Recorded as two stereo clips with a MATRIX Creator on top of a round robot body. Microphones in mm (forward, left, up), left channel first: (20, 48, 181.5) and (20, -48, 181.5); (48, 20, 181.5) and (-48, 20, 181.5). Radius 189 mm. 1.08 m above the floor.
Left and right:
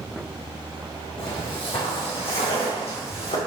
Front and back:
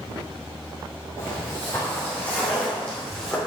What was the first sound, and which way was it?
Footsteps, 60° left.